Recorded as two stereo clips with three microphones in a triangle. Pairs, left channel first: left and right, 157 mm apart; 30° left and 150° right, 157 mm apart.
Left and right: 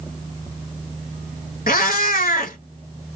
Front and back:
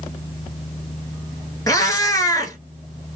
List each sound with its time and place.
1.7 s a cat meowing: 95° left, 0.6 m